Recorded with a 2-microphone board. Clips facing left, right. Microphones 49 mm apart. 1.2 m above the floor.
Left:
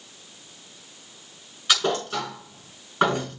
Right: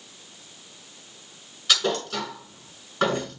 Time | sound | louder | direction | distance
1.7 | a thud | left 1 dB | 10° left (ahead or behind) | 5.5 m